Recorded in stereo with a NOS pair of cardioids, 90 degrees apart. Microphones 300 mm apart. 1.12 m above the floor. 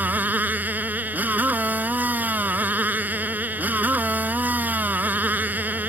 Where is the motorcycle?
5° right.